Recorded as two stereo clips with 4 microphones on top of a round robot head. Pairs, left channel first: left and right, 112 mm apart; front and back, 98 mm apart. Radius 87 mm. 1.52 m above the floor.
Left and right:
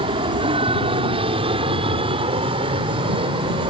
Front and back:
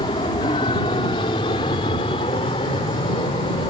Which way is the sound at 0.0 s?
55° right.